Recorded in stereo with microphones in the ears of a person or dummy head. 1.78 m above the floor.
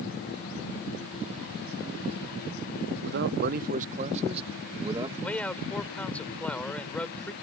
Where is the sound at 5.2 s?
5° left (ahead or behind).